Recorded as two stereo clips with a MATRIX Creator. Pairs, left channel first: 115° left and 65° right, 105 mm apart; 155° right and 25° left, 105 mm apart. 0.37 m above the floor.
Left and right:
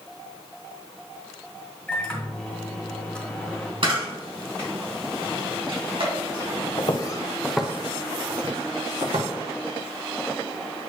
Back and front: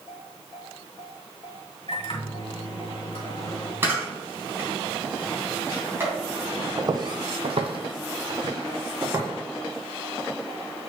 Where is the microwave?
170° right, 1.8 m.